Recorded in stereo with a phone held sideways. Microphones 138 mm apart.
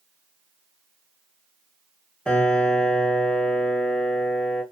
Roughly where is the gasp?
No gasp in this recording.